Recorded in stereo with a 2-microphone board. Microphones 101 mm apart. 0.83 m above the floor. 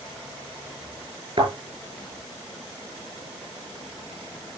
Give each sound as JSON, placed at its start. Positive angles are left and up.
{"t": 1.4, "sound": "a thud", "side_deg": -55, "distance_m": 6.5}